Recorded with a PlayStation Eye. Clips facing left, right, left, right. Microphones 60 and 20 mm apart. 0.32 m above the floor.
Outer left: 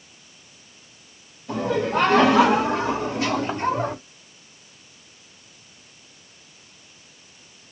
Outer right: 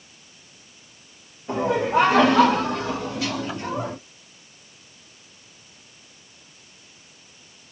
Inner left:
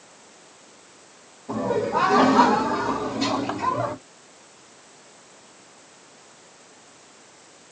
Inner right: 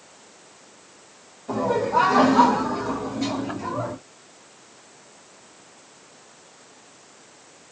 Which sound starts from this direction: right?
Laughter, at 1.5 s.